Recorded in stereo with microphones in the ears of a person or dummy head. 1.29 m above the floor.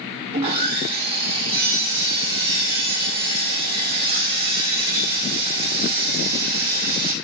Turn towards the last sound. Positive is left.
turn(degrees=-25)  # may be behind; listen again after turning